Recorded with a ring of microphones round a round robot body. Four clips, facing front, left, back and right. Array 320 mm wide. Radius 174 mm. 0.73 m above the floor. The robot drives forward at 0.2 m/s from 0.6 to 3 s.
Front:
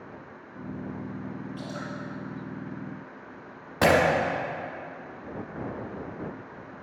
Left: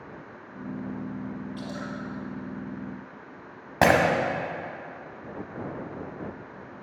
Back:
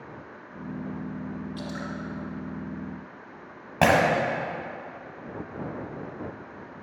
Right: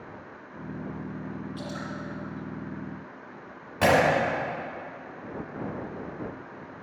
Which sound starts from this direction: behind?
Dripping, at 1.6 s.